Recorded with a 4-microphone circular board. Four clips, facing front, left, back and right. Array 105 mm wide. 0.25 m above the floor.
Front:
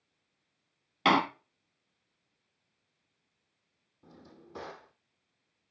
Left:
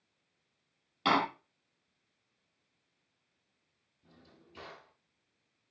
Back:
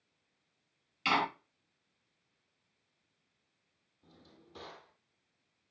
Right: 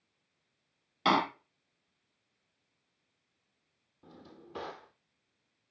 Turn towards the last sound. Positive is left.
turn(degrees=-65)